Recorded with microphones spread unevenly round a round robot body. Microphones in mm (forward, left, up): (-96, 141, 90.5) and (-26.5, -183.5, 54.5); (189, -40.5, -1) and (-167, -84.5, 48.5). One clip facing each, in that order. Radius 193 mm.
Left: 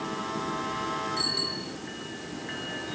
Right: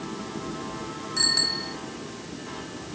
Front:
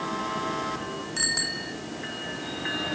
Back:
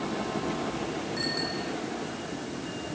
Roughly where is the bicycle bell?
Ahead.